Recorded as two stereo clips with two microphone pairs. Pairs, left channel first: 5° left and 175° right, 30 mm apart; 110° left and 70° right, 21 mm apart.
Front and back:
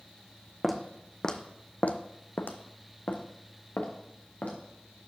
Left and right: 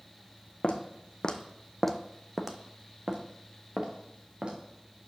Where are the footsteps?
90° left, 0.7 m; by 4.6 s 30° right, 1.6 m.